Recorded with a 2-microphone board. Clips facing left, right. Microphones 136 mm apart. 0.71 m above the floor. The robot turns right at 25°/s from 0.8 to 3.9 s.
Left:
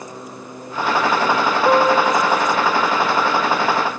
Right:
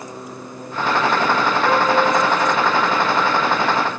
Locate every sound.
1.6 s a piano: 30° left (ahead or behind), 1.0 m; by 2.9 s centre (ahead or behind), 1.0 m